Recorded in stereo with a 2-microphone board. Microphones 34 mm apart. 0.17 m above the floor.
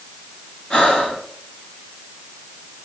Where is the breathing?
20° left (ahead or behind), 1.4 m.